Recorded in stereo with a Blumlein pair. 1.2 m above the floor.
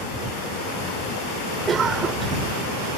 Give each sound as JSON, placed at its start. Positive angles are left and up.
{"t": 1.7, "sound": "a cough", "azimuth_deg": -20}